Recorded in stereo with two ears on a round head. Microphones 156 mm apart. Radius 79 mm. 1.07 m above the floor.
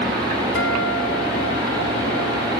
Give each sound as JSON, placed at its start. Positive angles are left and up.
{"t": 0.6, "sound": "a guitar", "side_deg": 75, "distance_m": 2.5}